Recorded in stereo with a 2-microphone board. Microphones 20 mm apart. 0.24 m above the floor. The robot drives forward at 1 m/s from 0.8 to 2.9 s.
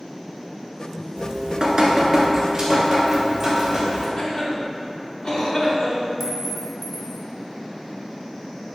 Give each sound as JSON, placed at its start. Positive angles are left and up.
{"t": 1.2, "sound": "dripping", "side_deg": -55, "distance_m": 0.8}
{"t": 4.2, "sound": "a cough", "side_deg": 55, "distance_m": 2.5}
{"t": 6.2, "sound": "a clink", "side_deg": -10, "distance_m": 1.0}